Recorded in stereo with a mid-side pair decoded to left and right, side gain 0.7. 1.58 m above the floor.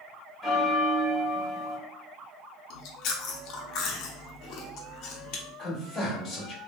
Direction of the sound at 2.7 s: 55° left.